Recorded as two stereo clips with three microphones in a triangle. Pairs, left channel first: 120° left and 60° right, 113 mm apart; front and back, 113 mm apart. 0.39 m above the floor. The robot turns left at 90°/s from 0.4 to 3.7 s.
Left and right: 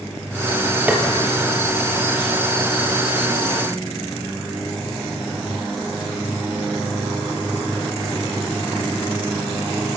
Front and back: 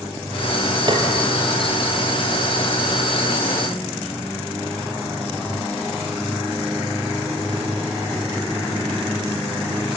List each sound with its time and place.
0.9 s tapping: 135° right, 3.5 m; by 1.0 s 150° right, 3.5 m